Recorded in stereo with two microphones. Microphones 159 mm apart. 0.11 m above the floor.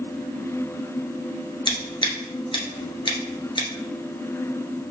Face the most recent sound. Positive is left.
turn(degrees=30)  # may be behind; listen again after turning